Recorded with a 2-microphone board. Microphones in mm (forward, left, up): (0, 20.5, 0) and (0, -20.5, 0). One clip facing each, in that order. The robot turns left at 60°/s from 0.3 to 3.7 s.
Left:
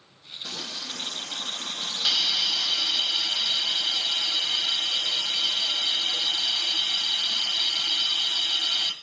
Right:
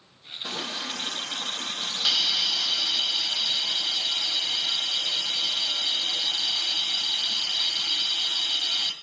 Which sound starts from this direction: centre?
A hiss, at 2.0 s.